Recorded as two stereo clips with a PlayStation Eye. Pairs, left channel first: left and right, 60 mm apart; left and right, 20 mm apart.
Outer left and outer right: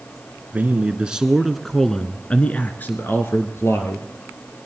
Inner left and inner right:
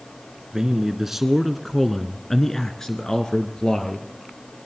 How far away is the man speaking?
About 1.2 m.